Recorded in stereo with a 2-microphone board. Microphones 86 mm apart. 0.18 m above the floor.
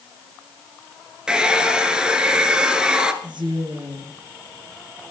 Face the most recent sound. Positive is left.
turn(degrees=-60)  # may be behind; listen again after turning